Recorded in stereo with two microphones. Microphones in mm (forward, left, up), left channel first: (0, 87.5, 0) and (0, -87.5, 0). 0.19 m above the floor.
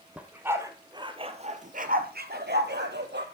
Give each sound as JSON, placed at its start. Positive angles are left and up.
{"t": 0.2, "sound": "a dog barking", "side_deg": -5, "distance_m": 1.7}